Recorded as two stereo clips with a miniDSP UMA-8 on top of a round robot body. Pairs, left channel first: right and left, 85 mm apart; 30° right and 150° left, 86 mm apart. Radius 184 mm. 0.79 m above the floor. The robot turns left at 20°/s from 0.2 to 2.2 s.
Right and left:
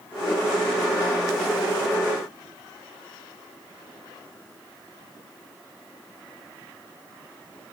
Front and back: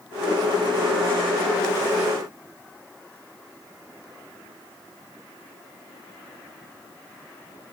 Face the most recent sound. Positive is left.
No sound to turn to.